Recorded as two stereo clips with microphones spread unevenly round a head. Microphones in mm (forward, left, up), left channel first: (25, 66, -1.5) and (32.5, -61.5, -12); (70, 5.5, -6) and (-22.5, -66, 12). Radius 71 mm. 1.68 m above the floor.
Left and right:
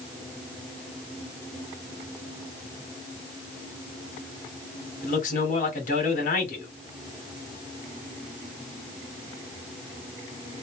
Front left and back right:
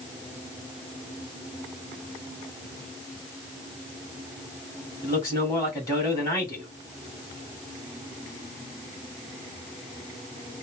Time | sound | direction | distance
5.0 | a man speaking | 110° left | 1.4 m